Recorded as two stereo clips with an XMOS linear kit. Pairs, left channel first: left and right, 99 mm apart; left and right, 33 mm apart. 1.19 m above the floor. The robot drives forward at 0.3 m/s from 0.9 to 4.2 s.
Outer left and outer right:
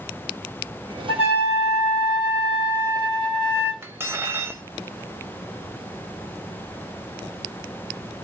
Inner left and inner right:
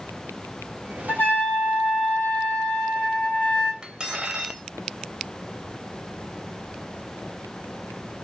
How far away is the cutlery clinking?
About 0.6 m.